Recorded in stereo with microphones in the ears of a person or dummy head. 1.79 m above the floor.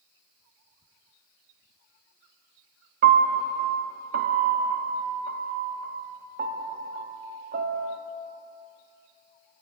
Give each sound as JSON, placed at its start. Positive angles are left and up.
{"t": 3.0, "sound": "a piano", "side_deg": -45, "distance_m": 0.6}